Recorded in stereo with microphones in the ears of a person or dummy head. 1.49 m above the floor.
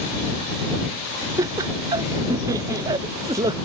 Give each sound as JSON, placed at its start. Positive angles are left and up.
{"t": 1.4, "sound": "laughter", "side_deg": -25}